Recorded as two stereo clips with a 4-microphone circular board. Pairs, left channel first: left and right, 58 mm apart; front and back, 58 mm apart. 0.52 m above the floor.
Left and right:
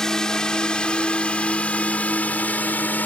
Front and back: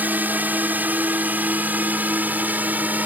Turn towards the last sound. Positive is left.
turn(degrees=135)